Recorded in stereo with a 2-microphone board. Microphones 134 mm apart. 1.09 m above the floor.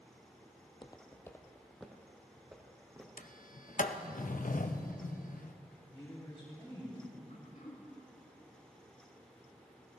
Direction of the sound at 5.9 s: 25° left (ahead or behind).